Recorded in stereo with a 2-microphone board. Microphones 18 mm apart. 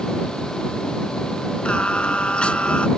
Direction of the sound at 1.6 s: 80° left.